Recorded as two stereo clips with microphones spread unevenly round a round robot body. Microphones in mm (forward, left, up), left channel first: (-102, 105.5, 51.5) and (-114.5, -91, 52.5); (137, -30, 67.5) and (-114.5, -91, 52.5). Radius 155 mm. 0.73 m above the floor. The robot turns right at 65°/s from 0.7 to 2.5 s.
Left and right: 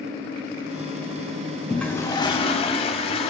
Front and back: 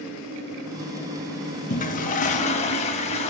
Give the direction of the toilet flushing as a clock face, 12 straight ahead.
12 o'clock.